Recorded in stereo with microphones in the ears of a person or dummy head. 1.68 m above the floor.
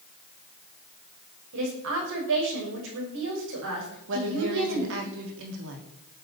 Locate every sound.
1.5 s a woman speaking: 70° right (ahead or behind), 6.5 m
4.1 s a woman speaking: 65° right (ahead or behind), 3.5 m